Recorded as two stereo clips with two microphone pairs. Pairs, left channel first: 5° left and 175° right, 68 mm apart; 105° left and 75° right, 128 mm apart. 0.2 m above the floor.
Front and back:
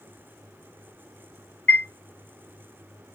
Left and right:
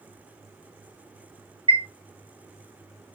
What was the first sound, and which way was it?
A chime, 50° right.